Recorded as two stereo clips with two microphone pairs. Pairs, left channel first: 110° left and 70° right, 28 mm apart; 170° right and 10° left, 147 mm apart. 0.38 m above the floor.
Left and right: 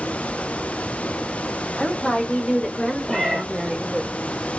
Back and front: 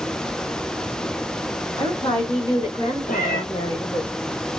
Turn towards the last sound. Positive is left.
turn(degrees=170)